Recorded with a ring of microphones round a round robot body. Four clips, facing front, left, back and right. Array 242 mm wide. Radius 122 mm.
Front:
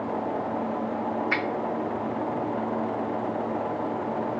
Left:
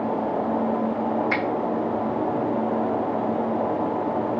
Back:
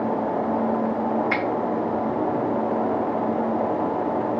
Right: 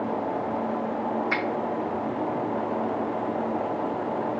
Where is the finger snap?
140° left, 0.8 m.